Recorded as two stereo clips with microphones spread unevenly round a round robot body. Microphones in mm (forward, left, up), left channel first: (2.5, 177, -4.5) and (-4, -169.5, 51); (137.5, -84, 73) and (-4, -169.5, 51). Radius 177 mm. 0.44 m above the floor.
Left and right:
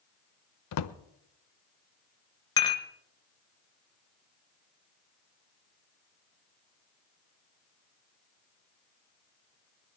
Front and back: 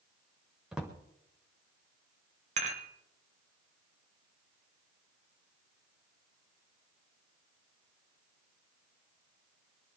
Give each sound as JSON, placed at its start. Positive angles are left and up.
{"t": 0.7, "sound": "a drawer", "azimuth_deg": 130, "distance_m": 0.7}
{"t": 2.6, "sound": "dishes clattering", "azimuth_deg": 165, "distance_m": 1.2}